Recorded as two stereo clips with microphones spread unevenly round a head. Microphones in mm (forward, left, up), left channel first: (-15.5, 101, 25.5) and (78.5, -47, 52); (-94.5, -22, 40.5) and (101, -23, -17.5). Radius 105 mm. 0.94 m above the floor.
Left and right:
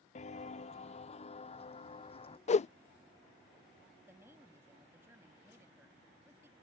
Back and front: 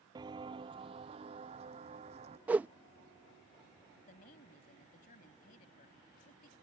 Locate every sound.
0.1 s footsteps: 80° left; by 2.4 s 65° left
2.5 s a whoosh: 75° left
4.0 s a woman speaking: 135° right